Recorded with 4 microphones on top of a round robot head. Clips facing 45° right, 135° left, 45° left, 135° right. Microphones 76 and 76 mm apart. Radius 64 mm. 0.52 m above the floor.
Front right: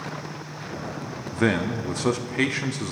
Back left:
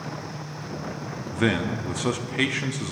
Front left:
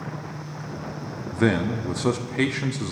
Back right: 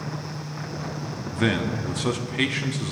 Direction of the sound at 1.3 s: 15° left.